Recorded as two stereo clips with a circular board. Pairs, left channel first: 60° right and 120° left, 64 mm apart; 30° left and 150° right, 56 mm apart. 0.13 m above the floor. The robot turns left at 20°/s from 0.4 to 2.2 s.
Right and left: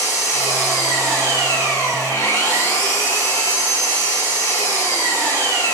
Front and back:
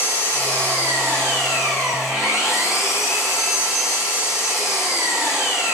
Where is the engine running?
30° right, 5 m; by 5.7 s 70° right, 5 m.